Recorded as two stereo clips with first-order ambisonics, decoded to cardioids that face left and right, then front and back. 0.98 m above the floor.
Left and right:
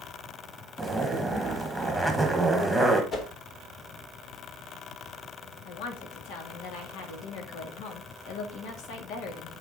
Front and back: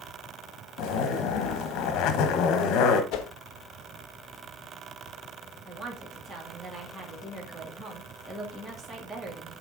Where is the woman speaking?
105° left, 1.9 m.